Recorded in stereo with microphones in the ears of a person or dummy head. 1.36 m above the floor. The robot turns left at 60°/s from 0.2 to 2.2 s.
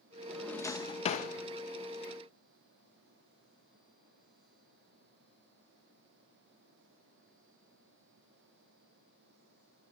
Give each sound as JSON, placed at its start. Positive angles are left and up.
{"t": 0.3, "sound": "a drawer", "side_deg": 0, "distance_m": 0.8}